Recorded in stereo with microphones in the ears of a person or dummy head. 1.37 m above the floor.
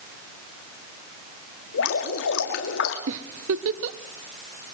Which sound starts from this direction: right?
A giggle, at 3.1 s.